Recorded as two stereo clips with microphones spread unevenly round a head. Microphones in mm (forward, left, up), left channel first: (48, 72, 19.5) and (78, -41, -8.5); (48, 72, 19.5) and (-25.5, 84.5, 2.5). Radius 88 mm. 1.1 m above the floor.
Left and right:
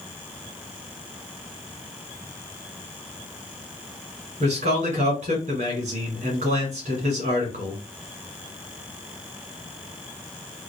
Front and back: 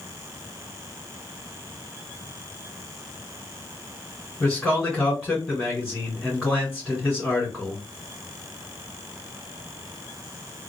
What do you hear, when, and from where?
4.4 s a man speaking: 100° right, 2 m